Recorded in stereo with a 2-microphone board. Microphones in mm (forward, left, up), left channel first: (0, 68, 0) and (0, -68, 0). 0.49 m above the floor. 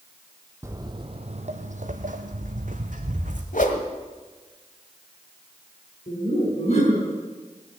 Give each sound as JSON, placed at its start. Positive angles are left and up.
{"t": 0.6, "sound": "footsteps", "side_deg": -20, "distance_m": 1.1}
{"t": 3.5, "sound": "a whoosh", "side_deg": 70, "distance_m": 1.5}
{"t": 6.1, "sound": "laughter", "side_deg": 55, "distance_m": 5.5}